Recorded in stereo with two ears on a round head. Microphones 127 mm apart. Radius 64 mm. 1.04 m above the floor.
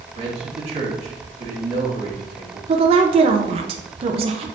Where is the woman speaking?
40° right (ahead or behind), 0.8 m.